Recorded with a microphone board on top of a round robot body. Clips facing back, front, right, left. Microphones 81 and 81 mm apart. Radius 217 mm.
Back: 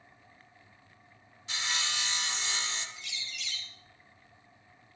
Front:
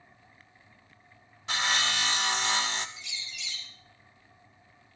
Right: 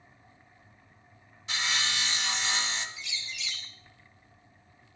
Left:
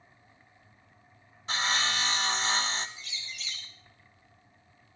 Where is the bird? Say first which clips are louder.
Even, right 3 dB; 140° left, 2.5 m.